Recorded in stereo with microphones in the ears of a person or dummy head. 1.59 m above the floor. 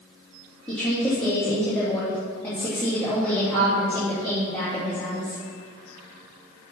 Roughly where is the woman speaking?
Centre.